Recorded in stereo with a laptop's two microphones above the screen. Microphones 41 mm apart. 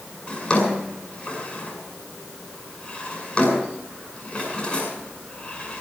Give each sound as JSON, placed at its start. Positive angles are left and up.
{"t": 0.3, "sound": "a drawer", "side_deg": 25, "distance_m": 7.0}